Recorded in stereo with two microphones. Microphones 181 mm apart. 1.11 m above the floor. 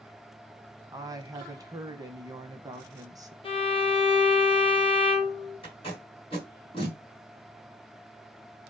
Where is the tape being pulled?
30° left (ahead or behind), 1.5 m.